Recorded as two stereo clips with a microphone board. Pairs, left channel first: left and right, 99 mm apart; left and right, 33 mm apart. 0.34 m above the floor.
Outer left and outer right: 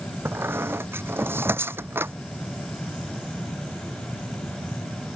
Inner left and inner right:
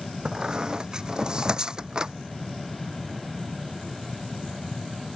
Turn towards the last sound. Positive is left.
turn(degrees=-25)  # may be behind; listen again after turning